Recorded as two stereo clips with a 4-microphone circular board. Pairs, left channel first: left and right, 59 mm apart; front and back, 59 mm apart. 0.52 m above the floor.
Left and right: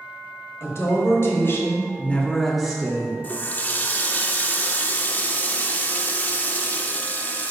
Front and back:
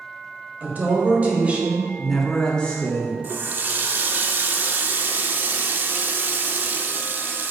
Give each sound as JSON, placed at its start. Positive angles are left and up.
{"t": 0.6, "sound": "a woman speaking", "azimuth_deg": 125, "distance_m": 2.0}
{"t": 3.2, "sound": "a running tap", "azimuth_deg": 140, "distance_m": 0.5}